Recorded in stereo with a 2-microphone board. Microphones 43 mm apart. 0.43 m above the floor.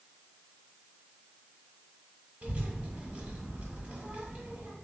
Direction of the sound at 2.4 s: 35° right (ahead or behind).